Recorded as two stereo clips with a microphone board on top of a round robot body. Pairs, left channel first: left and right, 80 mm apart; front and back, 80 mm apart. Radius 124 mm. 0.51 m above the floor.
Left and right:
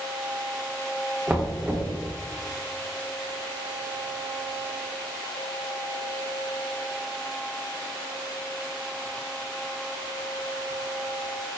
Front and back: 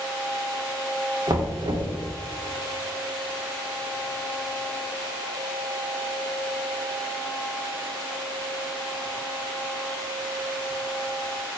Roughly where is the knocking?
Behind.